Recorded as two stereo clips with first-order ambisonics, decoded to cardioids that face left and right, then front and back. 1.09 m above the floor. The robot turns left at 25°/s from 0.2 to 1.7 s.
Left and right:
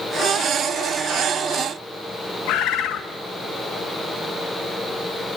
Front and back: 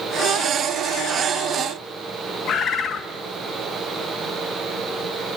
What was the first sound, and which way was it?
A bird, 60° left.